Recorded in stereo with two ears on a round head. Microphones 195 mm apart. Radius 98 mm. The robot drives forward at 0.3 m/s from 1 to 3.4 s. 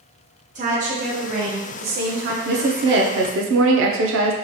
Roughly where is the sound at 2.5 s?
Right.